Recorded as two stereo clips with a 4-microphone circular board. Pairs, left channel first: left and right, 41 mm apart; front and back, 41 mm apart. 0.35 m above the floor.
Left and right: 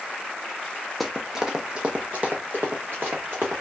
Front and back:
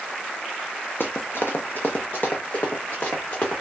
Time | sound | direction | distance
1.0 | running footsteps | straight ahead | 0.7 m